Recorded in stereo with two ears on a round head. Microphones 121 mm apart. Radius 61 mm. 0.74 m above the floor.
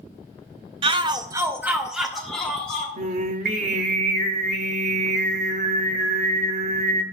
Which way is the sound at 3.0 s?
55° right (ahead or behind).